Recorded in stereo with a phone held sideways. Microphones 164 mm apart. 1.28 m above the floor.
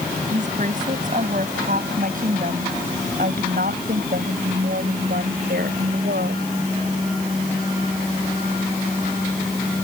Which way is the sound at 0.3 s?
50° right (ahead or behind).